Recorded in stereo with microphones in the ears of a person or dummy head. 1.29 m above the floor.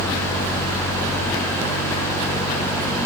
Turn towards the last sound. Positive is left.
No sound to turn to.